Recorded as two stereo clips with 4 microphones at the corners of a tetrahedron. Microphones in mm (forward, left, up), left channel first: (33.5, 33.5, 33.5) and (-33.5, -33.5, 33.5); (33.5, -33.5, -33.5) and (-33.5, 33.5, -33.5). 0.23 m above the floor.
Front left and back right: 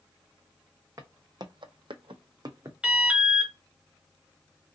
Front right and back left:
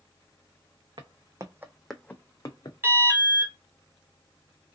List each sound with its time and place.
1.0 s footsteps: 170° left, 0.8 m; by 2.7 s 85° right, 0.8 m
2.8 s an alarm: 155° left, 0.9 m